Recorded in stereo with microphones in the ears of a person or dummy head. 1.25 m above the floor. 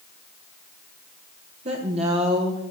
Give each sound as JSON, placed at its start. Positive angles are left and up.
{"t": 1.6, "sound": "a woman speaking", "side_deg": -35, "distance_m": 0.9}